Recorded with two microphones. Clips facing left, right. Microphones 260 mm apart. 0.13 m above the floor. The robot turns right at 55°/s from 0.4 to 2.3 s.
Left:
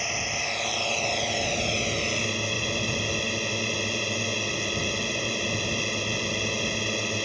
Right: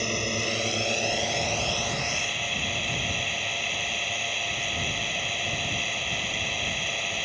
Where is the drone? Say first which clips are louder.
Right 6 dB; 50° right; by 7.3 s 55° left.